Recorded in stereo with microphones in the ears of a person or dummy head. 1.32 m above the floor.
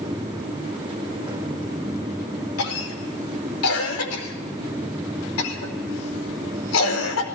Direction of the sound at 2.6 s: 90° left.